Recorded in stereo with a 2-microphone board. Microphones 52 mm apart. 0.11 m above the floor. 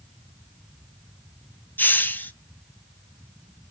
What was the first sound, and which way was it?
A hiss, 40° left (ahead or behind).